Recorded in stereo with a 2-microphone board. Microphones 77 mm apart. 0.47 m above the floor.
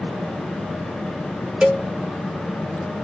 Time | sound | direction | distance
1.6 | a cowbell | 10° right (ahead or behind) | 0.5 m